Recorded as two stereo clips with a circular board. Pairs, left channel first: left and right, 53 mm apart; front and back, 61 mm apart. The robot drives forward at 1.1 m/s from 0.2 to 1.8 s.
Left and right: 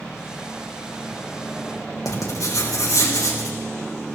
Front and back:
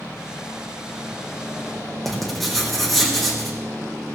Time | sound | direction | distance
2.0 | writing | 90° left | 4.5 m